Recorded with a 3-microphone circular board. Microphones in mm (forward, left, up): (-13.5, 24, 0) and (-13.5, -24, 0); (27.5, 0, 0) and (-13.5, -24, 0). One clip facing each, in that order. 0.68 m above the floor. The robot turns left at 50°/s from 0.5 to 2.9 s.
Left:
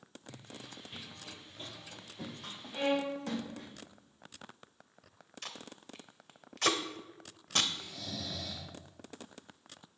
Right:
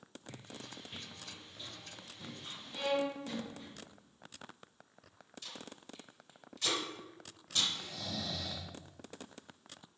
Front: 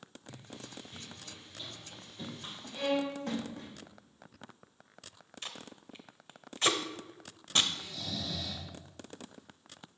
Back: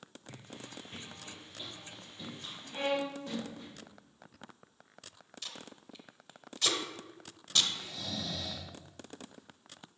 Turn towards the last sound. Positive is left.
turn(degrees=-90)